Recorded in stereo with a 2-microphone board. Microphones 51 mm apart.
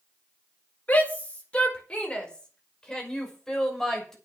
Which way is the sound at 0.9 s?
30° left (ahead or behind).